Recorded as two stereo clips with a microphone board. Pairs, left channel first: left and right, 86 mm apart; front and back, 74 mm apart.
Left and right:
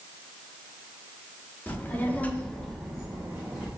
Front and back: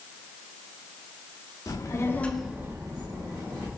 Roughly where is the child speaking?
Ahead left.